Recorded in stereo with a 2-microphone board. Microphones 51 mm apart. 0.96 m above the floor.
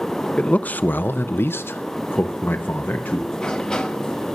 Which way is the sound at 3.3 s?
15° left (ahead or behind).